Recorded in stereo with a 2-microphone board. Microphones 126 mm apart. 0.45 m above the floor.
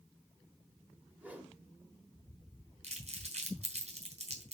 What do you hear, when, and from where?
1.2 s a whoosh: 15° right (ahead or behind), 1.3 m
2.8 s crumpling: 60° right (ahead or behind), 3 m